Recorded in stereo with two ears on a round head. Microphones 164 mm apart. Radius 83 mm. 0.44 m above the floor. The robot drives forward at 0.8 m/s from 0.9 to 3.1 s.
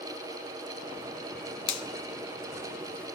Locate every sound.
1.7 s a finger snap: 30° left (ahead or behind), 1.2 m